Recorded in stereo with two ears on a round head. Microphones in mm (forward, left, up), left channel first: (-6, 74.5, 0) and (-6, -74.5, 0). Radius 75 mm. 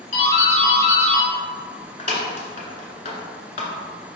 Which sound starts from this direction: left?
A doorbell, at 0.1 s.